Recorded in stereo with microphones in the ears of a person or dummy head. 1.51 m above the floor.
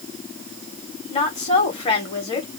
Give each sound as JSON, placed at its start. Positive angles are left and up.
{"t": 1.1, "sound": "a woman speaking", "side_deg": 30, "distance_m": 1.8}